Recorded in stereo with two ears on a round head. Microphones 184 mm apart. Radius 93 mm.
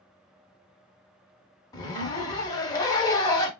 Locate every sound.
1.7 s a zipper: 20° left (ahead or behind), 0.6 m